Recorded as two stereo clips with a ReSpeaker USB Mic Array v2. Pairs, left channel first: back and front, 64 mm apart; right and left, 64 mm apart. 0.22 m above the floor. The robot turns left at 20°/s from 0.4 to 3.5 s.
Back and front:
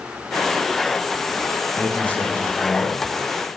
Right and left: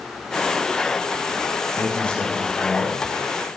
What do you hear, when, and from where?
1.7 s a man speaking: 140° right, 1.1 m; by 3.0 s 165° right, 1.1 m